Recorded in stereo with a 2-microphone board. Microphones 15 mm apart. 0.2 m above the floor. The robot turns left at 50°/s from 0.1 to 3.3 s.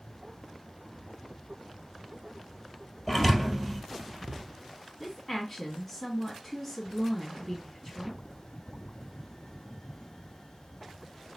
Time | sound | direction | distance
3.1 | a thud | 10° left (ahead or behind) | 2 m
5.0 | a woman speaking | centre (ahead or behind) | 1.8 m